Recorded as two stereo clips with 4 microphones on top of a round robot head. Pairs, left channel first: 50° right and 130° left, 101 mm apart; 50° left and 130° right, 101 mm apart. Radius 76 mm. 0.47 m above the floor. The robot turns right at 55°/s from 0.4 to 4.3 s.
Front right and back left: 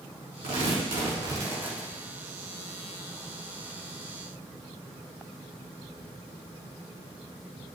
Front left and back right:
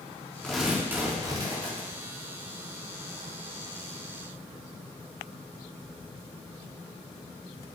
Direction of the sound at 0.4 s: 135° left.